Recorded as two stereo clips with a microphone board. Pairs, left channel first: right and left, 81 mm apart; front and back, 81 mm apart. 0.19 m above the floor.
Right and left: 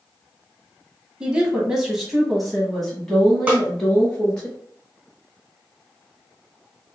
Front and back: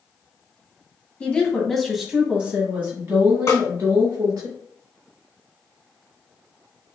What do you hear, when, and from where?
1.2 s a woman speaking: 35° left, 1.2 m; by 4.5 s 165° right, 1.8 m
3.5 s a snare drum: 25° left, 2 m